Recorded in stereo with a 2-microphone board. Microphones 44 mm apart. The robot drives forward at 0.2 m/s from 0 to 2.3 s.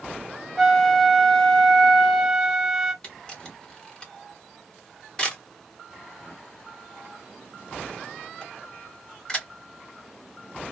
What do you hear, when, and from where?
0.6 s a flute: 5° left (ahead or behind), 0.6 m; by 2.9 s centre (ahead or behind), 1.0 m
3.0 s a camera shutter: 25° left (ahead or behind), 1.4 m